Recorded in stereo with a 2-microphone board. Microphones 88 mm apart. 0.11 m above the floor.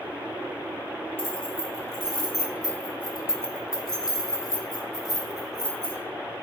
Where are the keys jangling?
25° left (ahead or behind), 2.5 m.